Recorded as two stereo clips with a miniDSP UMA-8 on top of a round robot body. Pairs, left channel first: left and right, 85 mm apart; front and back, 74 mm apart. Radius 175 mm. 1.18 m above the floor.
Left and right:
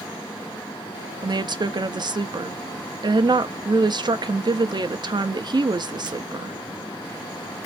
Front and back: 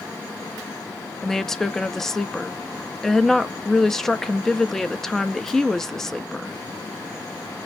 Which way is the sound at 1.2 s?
85° right.